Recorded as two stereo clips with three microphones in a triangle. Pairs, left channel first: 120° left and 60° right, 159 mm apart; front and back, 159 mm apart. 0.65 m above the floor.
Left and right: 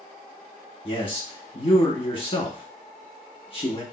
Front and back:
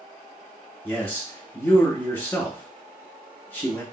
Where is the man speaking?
75° left, 1.1 m.